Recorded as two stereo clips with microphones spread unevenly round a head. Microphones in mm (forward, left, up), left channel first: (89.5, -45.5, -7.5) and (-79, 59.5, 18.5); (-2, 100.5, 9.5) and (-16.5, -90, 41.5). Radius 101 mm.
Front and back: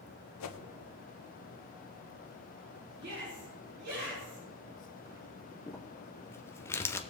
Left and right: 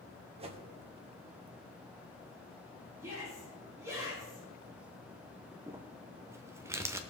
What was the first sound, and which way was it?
A whoosh, 35° right.